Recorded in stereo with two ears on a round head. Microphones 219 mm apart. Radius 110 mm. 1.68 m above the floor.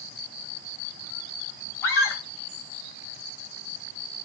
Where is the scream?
10° left (ahead or behind), 7.5 m.